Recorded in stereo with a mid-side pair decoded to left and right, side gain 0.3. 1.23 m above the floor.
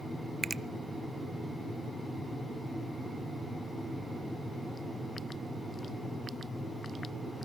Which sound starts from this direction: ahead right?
A finger snap, at 0.4 s.